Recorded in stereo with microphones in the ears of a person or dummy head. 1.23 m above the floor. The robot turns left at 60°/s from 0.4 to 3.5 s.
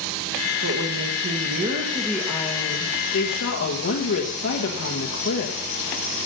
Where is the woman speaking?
80° right, 1.6 m; by 5.6 s 105° left, 1.6 m.